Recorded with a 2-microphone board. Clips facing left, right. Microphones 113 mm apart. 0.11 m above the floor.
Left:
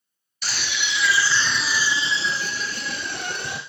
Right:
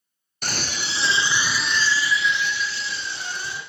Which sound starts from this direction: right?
A scream, at 0.4 s.